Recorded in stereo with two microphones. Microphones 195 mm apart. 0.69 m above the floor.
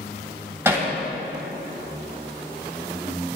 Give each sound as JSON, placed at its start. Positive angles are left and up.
{"t": 0.7, "sound": "hammering", "side_deg": -15, "distance_m": 3.0}